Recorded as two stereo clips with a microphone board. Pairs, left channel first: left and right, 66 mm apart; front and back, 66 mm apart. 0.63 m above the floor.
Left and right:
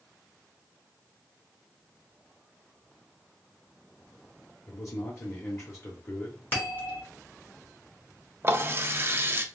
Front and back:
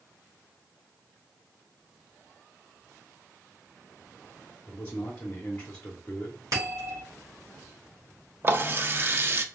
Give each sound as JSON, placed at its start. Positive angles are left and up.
{"t": 4.7, "sound": "a man speaking", "azimuth_deg": 55, "distance_m": 1.0}
{"t": 6.5, "sound": "a bell", "azimuth_deg": 150, "distance_m": 3.0}
{"t": 8.4, "sound": "a running tap", "azimuth_deg": -135, "distance_m": 0.5}